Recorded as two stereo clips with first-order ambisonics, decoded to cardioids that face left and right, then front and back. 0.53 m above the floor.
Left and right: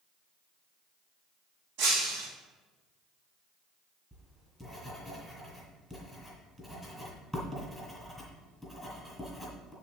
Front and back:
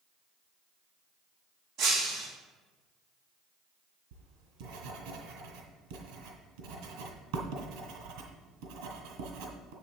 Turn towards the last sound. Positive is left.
turn(degrees=-170)